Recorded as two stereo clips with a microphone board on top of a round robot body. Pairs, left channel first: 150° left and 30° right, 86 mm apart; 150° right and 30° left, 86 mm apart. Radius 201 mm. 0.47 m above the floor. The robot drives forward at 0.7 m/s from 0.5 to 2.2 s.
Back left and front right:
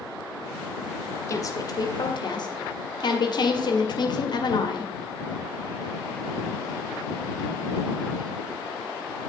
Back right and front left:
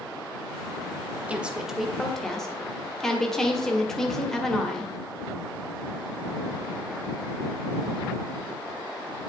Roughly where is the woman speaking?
Left.